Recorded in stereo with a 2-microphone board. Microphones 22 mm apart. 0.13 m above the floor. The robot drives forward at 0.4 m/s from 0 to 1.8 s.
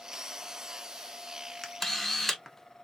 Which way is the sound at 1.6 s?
Centre (ahead or behind).